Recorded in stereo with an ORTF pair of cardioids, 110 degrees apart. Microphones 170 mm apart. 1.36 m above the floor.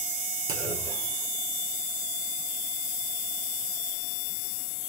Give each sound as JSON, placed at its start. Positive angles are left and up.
{"t": 0.5, "sound": "a clunk", "azimuth_deg": -60, "distance_m": 1.3}